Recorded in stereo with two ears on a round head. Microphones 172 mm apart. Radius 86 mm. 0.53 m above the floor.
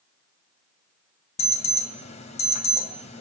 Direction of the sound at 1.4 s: 35° left (ahead or behind).